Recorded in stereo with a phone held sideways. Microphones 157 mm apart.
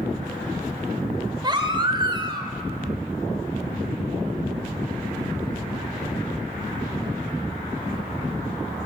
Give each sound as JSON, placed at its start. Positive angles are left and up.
{"t": 1.4, "sound": "a baby crying", "side_deg": -30, "distance_m": 1.8}